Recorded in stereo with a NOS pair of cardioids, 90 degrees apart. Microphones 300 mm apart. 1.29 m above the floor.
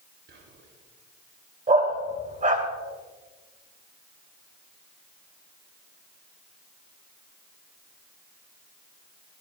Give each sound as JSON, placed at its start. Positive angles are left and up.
{"t": 0.3, "sound": "whispering", "azimuth_deg": -40, "distance_m": 4.0}
{"t": 1.7, "sound": "a dog barking", "azimuth_deg": -25, "distance_m": 2.5}